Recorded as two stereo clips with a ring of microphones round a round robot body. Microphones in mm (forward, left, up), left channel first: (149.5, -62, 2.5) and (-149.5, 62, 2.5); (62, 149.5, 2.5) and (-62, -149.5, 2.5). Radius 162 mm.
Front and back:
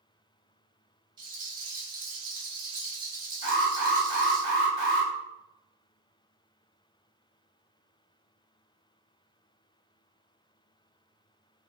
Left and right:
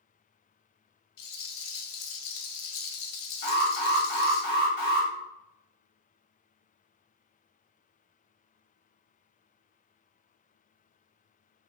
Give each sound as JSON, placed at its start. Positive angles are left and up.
{"t": 1.2, "sound": "a rattle", "azimuth_deg": 80, "distance_m": 0.6}
{"t": 3.4, "sound": "an alarm", "azimuth_deg": 25, "distance_m": 1.1}